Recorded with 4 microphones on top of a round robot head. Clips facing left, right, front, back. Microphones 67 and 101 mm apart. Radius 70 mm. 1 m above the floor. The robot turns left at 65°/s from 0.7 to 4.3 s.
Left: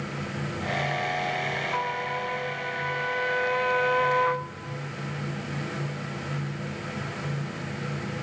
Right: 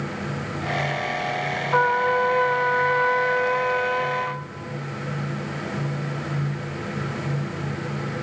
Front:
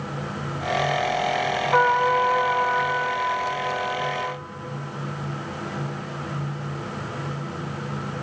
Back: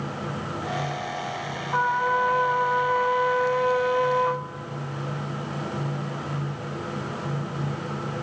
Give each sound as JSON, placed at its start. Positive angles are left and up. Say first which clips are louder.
{"t": 1.7, "sound": "a trumpet", "louder": "right 10 dB, front 3 dB", "azimuth_deg": -40, "distance_m": 0.6}